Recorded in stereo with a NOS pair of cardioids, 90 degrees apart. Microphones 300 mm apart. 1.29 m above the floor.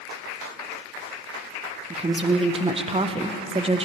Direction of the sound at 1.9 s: 20° right.